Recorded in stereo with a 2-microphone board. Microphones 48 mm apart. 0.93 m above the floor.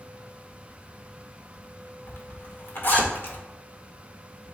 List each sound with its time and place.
2.1 s a zipper: 45° left (ahead or behind), 1.8 m